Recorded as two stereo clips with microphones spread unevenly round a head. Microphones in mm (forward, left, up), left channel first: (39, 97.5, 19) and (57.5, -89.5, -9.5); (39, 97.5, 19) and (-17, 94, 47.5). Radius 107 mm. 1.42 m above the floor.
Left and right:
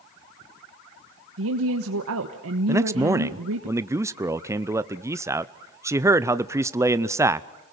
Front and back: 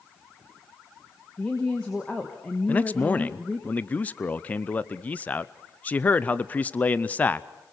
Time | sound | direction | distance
1.4 | a woman speaking | 85° right | 1.2 m
2.7 | a man speaking | 20° right | 0.5 m